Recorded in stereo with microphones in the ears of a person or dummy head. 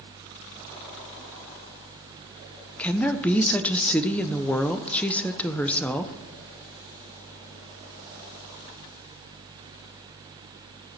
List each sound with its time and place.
2.8 s a woman speaking: 5° left (ahead or behind), 1.0 m